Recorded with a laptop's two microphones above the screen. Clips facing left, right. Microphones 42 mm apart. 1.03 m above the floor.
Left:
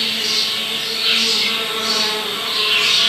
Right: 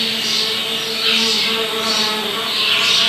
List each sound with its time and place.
0.0 s an insect: 60° right (ahead or behind), 1.0 m